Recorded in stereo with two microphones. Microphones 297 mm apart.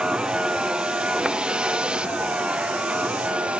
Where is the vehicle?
5° right (ahead or behind).